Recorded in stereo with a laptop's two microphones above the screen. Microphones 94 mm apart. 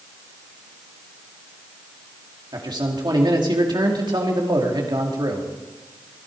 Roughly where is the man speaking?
Right.